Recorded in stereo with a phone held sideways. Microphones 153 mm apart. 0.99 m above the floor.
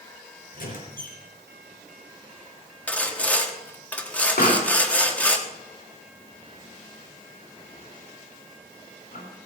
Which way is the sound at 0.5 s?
70° left (ahead or behind).